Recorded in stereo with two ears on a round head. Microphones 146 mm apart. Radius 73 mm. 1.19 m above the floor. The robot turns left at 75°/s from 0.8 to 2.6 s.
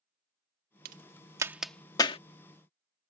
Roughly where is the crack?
Right.